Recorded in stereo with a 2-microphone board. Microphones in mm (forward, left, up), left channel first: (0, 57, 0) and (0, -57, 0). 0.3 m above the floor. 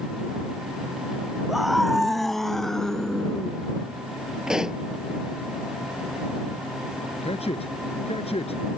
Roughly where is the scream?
Centre.